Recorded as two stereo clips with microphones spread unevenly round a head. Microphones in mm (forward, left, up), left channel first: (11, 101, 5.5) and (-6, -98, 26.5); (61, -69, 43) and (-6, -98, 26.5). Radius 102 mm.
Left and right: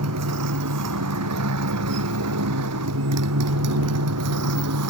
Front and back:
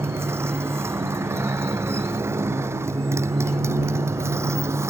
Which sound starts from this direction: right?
A motorcycle, at 0.0 s.